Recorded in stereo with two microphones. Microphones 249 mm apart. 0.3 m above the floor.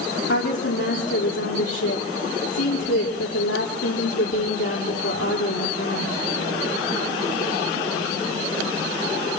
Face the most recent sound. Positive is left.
turn(degrees=75)  # may be behind; listen again after turning